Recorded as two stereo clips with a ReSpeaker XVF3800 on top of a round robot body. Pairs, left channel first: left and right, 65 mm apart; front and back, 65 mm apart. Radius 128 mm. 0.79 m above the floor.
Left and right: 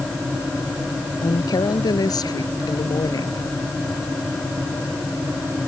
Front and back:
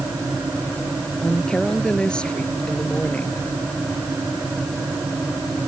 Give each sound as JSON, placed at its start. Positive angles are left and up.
{"t": 1.2, "sound": "a woman speaking", "azimuth_deg": 80}